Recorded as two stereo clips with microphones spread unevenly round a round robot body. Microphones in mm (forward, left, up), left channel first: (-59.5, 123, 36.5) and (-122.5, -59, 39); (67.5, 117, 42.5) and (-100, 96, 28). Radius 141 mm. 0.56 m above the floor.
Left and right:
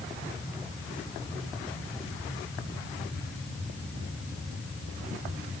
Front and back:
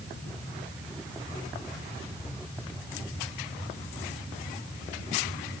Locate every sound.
Only background noise.